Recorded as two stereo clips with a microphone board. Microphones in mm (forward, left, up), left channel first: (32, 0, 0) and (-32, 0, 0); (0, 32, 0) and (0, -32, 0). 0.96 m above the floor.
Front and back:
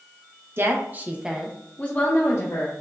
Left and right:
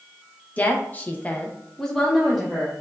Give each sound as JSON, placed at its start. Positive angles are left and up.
{"t": 0.6, "sound": "a woman speaking", "azimuth_deg": 145, "distance_m": 0.9}